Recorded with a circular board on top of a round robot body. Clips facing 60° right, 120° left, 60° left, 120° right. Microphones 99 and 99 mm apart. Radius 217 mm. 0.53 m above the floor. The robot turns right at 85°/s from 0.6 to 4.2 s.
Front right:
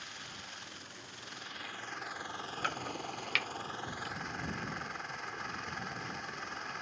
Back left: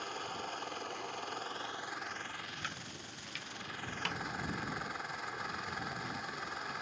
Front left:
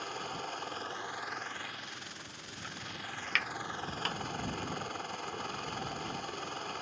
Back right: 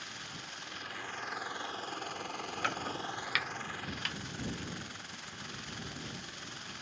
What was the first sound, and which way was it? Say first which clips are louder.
A helicopter: back left 9 dB, front left 8 dB; 90° left.